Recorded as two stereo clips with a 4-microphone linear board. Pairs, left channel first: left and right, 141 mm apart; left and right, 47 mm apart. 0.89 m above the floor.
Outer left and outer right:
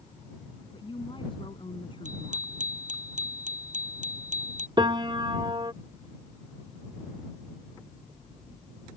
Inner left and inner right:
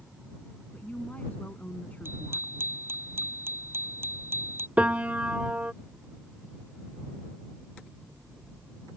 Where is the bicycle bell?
60° right (ahead or behind).